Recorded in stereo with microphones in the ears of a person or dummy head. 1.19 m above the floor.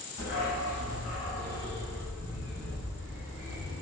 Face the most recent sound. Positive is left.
turn(degrees=35)  # may be behind; listen again after turning